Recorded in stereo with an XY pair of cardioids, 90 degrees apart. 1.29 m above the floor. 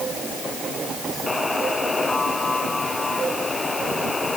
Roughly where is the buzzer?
Ahead left.